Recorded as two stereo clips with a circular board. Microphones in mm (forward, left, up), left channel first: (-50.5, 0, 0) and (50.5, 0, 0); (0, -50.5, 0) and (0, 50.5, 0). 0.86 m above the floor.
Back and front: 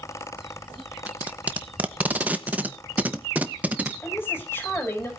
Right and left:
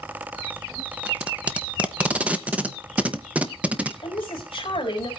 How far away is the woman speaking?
About 3.5 m.